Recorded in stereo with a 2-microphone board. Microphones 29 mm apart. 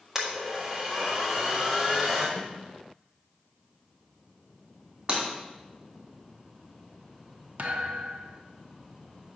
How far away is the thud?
About 0.9 m.